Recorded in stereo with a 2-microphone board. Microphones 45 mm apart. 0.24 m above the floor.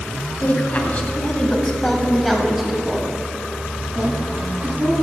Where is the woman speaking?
40° left (ahead or behind), 1.9 m; by 4.9 s 50° right (ahead or behind), 2.5 m.